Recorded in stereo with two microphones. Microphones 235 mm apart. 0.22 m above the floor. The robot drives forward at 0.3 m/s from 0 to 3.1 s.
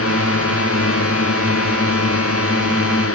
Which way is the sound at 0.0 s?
70° left (ahead or behind).